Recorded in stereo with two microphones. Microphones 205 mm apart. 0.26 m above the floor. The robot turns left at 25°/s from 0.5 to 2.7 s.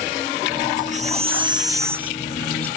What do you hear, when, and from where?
0.8 s a baby crying: 140° right; by 2.7 s 175° left